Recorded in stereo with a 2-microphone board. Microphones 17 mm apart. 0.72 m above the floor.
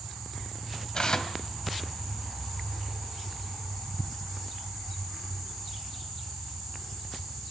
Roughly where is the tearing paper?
Left.